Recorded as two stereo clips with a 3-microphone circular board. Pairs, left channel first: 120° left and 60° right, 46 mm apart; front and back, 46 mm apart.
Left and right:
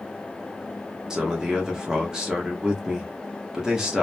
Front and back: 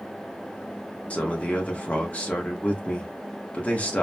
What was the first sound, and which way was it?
A man speaking, straight ahead.